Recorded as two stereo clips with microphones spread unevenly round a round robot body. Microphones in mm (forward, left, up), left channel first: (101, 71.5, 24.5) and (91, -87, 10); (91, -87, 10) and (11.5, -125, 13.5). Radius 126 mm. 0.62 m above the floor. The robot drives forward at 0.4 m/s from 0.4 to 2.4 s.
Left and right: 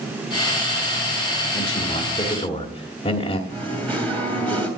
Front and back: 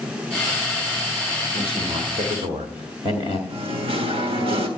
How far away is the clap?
No clap in this recording.